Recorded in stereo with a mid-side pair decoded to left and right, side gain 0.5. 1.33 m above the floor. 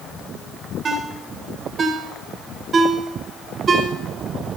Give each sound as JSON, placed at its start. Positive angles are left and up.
{"t": 0.8, "sound": "a ringtone", "azimuth_deg": -40, "distance_m": 4.0}